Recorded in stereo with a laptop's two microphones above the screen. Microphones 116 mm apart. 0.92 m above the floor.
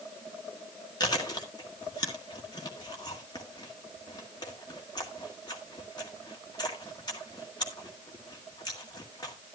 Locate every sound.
1.0 s chewing: 35° left (ahead or behind), 1.8 m